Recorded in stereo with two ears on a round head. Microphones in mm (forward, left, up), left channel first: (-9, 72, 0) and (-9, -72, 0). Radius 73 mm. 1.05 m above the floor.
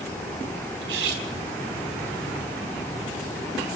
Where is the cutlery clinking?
85° right, 4 m.